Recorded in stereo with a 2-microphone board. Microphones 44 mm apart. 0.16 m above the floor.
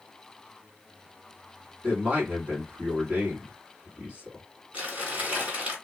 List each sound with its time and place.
1.8 s a man speaking: 35° right (ahead or behind), 1.6 m
4.7 s crumpling: 35° right (ahead or behind), 2.0 m